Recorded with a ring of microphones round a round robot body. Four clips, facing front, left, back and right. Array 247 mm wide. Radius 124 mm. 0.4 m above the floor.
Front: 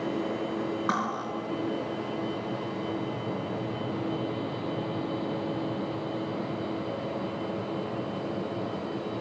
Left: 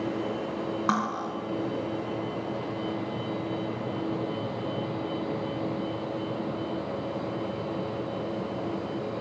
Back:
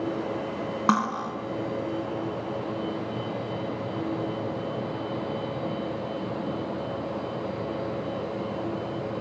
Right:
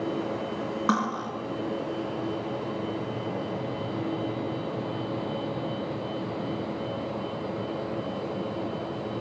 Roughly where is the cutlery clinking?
Behind.